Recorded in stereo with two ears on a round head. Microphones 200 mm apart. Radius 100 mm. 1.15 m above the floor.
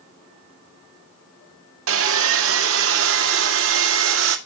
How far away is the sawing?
About 1.8 m.